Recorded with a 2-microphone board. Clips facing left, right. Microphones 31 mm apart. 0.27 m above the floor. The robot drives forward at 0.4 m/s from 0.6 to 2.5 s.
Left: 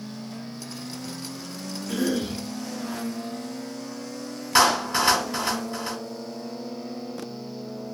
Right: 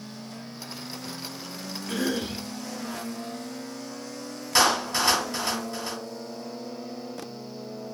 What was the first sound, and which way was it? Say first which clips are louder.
A cough: left 2 dB; 45° right (ahead or behind).